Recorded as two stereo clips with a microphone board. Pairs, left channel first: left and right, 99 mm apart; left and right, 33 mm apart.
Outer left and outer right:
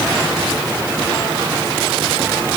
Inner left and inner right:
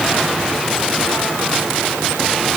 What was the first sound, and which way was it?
Only background noise.